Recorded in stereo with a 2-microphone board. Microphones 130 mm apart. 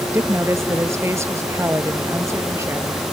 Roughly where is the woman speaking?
Centre.